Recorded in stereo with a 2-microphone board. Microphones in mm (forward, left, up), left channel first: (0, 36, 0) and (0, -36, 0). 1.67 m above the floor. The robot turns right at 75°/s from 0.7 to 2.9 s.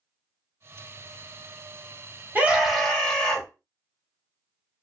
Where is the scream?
25° right, 1.1 m; by 3.5 s 15° left, 1.1 m.